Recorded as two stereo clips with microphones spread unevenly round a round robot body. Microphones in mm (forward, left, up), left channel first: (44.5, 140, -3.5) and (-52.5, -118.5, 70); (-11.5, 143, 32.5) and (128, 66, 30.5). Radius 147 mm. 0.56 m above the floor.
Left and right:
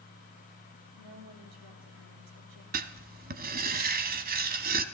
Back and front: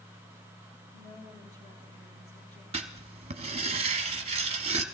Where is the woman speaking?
145° right, 5 m.